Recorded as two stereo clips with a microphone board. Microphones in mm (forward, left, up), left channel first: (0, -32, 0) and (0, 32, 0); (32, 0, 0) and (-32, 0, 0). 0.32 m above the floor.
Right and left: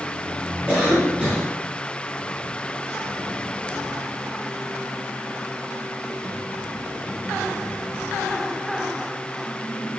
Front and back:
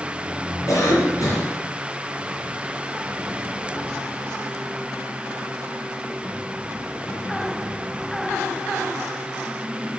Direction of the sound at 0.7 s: 15° right.